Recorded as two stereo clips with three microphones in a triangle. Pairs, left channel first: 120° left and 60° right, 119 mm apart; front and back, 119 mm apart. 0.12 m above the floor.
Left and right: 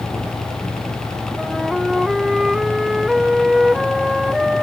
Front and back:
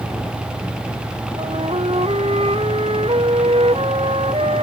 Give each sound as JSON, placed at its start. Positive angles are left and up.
{"t": 1.4, "sound": "a flute", "azimuth_deg": -145}